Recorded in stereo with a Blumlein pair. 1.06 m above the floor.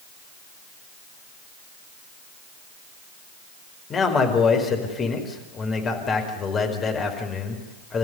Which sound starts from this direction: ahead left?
A man speaking, at 3.9 s.